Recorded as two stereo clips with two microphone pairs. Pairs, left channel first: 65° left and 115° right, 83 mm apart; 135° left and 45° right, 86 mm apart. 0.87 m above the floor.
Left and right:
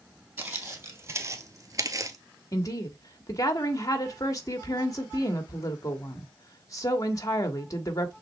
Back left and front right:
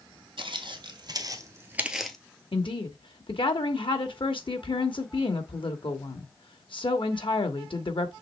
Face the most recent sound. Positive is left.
turn(degrees=115)